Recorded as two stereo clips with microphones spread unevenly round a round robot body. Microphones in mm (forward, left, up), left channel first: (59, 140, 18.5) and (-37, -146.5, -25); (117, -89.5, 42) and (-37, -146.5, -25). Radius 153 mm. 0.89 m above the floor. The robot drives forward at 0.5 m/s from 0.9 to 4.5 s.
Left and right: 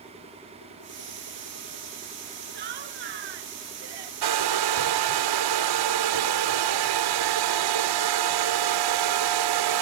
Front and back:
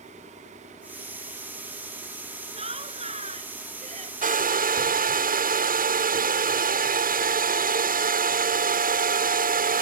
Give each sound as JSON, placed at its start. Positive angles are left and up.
{"t": 2.5, "sound": "laughter", "azimuth_deg": -105}
{"t": 4.2, "sound": "a hair dryer", "azimuth_deg": -120}